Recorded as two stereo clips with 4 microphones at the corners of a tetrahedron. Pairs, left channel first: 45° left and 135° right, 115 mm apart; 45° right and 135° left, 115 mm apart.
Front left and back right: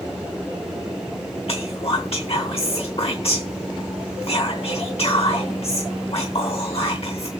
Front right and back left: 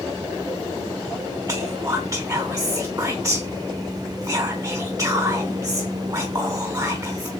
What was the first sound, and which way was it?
Whispering, 75° left.